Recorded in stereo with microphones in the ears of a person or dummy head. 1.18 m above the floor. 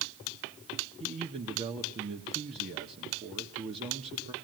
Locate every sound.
1.0 s a man speaking: 35° right (ahead or behind), 1.6 m